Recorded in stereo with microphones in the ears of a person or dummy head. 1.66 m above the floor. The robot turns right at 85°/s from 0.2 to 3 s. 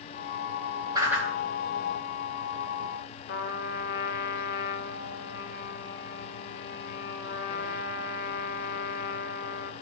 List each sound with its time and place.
0.9 s a whoosh: 20° right (ahead or behind), 2.5 m; by 1.3 s 5° left (ahead or behind), 2.5 m
3.3 s a trumpet: 65° left (ahead or behind), 1.1 m